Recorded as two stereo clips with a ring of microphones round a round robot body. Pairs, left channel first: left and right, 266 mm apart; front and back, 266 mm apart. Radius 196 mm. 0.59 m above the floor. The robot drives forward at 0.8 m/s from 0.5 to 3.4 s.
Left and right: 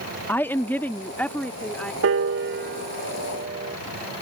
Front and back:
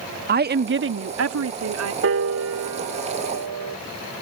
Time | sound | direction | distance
0.3 | a woman speaking | 170° left | ?
2.0 | a piano | 135° right | ?